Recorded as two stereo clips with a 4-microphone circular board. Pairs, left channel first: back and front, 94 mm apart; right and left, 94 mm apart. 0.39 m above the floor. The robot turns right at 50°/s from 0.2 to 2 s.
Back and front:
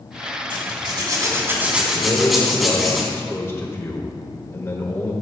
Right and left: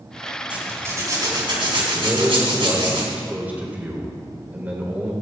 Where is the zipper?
15° left, 3.5 m; by 3.0 s 90° left, 3.5 m.